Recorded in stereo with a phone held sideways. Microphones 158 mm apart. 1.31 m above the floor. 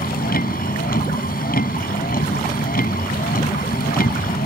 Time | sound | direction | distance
0.0 | a vehicle | 70° left (ahead or behind) | ?